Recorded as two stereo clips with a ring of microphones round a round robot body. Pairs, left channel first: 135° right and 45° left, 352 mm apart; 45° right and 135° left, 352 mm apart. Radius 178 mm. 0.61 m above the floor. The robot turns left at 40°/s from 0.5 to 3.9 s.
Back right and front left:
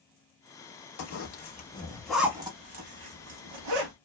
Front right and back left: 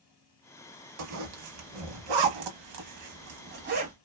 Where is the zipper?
Straight behind, 0.8 m; by 3.9 s 65° left, 0.8 m.